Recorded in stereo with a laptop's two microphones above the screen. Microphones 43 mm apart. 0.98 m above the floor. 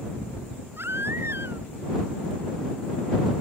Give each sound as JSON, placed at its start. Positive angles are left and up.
{"t": 0.8, "sound": "a baby crying", "side_deg": -70}